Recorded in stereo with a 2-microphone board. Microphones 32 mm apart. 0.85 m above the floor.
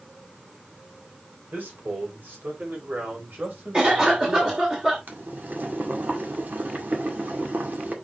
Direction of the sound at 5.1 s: 70° right (ahead or behind).